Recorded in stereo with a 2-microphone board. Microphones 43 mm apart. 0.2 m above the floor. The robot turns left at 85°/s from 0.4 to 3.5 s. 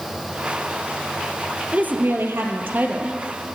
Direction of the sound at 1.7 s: 40° right.